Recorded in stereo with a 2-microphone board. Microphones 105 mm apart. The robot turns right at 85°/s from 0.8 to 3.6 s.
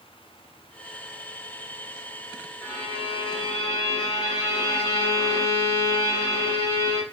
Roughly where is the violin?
Ahead left.